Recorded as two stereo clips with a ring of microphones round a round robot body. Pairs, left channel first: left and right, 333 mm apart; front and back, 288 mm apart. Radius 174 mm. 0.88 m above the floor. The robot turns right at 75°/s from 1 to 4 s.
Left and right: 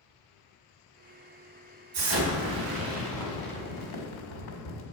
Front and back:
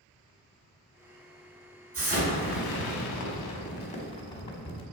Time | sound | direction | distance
1.9 | an explosion | 85° right | 1.7 m